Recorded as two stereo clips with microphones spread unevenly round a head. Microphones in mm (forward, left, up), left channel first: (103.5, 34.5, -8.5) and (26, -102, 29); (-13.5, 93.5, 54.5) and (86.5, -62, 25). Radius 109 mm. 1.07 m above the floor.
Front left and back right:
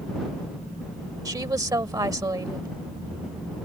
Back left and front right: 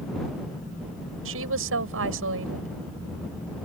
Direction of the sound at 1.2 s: 55° right.